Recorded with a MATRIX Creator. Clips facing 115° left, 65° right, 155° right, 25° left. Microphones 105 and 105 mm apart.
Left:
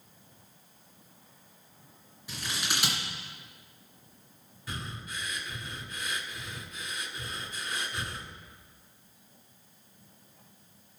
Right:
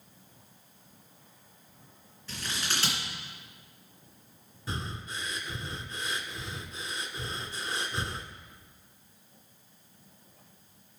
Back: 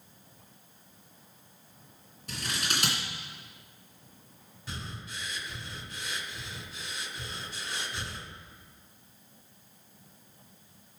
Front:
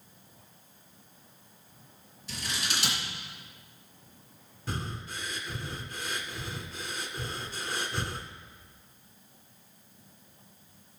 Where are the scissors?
175° right, 2.5 m.